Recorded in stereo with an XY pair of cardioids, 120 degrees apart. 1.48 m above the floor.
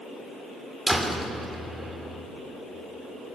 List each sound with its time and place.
0.9 s a door slam: 10° right, 3 m